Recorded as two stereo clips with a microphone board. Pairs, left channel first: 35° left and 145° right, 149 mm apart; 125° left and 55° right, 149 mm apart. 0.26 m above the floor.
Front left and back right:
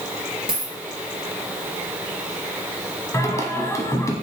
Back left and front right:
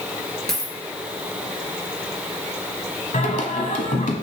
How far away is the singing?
About 1.1 m.